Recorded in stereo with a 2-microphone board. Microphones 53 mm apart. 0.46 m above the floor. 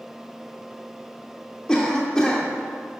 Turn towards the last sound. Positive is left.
turn(degrees=15)  # may be behind; listen again after turning